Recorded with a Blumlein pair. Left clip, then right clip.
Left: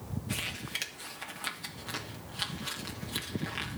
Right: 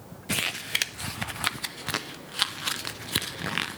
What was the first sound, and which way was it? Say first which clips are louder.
Crumpling: right 8 dB; 60° right.